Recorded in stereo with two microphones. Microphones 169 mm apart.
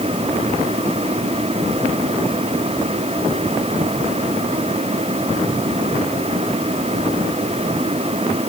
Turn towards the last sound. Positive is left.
No sound to turn to.